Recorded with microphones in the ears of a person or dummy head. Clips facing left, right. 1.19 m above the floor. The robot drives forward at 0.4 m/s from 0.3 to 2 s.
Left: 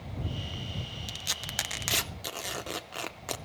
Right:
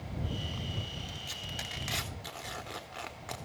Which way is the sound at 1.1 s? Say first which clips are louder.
Left 1 dB; 65° left (ahead or behind).